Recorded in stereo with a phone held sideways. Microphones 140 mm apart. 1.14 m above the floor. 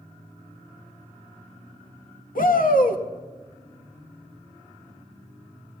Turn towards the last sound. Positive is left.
turn(degrees=80)